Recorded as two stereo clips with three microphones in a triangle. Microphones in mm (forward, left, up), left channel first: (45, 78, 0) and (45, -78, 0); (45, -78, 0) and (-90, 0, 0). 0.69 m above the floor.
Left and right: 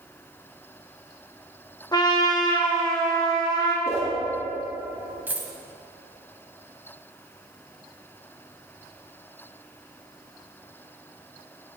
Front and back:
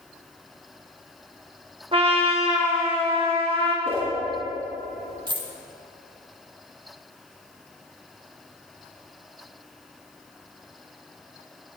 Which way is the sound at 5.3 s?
165° right.